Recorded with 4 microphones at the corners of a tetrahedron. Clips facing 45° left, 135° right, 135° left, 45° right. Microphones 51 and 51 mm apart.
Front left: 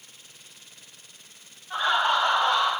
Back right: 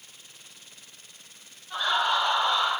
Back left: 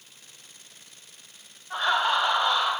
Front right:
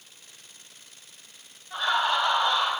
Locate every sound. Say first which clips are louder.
1.7 s laughter: front left 2 dB, back left 1 dB; 110° left, 1.2 m; by 2.7 s 50° left, 1.3 m